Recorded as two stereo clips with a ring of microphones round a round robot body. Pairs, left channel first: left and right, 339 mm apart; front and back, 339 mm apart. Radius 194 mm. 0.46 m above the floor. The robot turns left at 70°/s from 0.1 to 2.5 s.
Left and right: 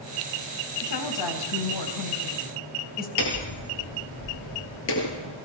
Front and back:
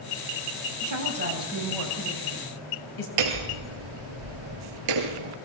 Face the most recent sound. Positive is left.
turn(degrees=150)